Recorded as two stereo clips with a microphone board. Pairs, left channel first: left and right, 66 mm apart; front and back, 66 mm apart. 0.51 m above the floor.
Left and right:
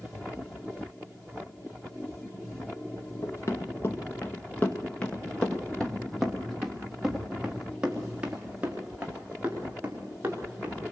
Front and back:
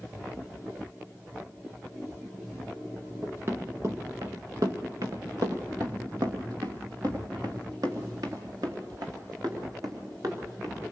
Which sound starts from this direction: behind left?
Running footsteps, at 3.2 s.